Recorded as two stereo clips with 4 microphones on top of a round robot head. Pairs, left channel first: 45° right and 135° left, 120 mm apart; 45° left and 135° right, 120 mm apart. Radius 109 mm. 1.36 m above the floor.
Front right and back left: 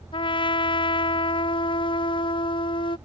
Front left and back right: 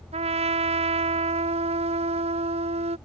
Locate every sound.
0.1 s a trumpet: 95° right